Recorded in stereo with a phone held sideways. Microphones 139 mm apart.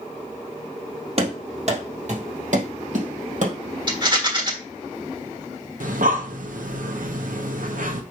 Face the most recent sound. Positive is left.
turn(degrees=-75)  # may be behind; listen again after turning